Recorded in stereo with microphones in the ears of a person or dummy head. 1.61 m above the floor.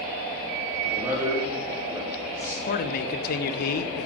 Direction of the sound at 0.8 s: 10° right (ahead or behind).